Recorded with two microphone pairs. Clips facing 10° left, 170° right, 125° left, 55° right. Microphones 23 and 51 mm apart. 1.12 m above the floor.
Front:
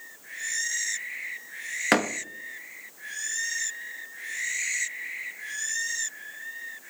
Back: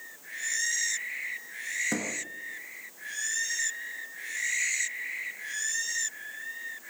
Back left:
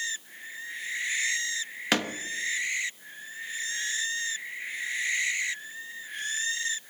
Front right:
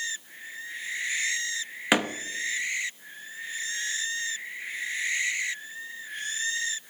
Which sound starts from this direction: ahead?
A door slam, at 1.9 s.